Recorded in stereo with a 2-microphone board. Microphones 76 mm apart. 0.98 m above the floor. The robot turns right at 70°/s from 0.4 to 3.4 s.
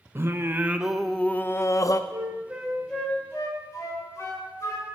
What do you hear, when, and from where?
0.1 s singing: 40° right, 0.5 m; by 2.0 s 75° left, 0.5 m
2.1 s a flute: 45° right (ahead or behind), 2.5 m; by 5.0 s 45° left (ahead or behind), 2.5 m